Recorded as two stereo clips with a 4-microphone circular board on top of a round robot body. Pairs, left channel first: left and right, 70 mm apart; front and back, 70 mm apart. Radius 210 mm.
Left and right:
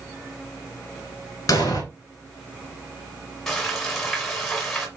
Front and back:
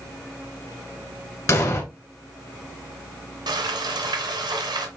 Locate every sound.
1.5 s an explosion: 50° left, 1.2 m
3.5 s frying: 175° left, 1.2 m